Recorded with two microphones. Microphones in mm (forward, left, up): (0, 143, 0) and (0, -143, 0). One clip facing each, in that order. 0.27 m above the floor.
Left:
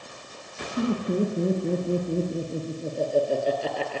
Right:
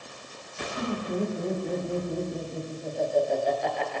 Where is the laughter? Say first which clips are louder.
Left 5 dB; 35° left (ahead or behind), 5.5 m.